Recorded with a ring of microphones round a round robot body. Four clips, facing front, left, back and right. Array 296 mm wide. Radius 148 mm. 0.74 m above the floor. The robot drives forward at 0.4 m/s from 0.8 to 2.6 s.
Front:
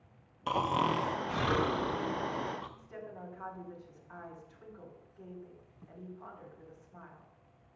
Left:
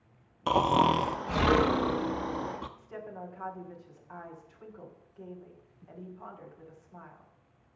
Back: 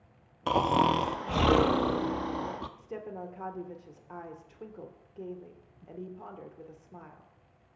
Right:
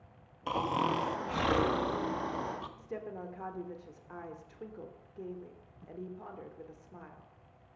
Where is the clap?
No clap in this recording.